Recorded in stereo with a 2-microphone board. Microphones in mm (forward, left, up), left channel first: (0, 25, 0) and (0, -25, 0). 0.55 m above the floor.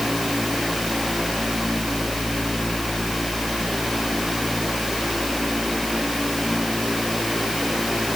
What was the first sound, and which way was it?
Only background noise.